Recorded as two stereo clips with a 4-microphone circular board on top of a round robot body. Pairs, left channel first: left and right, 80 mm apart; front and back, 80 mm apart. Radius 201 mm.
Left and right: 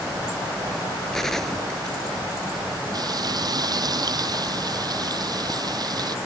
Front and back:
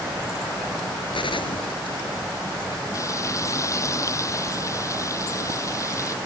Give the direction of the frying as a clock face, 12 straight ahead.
2 o'clock.